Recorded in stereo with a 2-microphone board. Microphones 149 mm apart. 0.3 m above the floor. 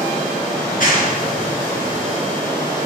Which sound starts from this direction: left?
A clap, at 0.6 s.